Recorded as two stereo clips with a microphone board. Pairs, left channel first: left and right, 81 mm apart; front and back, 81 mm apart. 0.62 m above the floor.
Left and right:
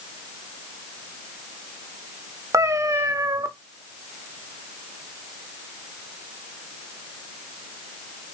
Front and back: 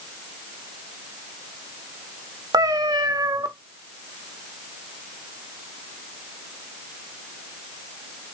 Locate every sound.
2.5 s a cat meowing: 140° right, 0.5 m